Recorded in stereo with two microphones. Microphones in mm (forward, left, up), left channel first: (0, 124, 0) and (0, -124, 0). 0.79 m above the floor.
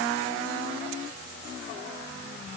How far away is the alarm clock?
I don't hear an alarm clock.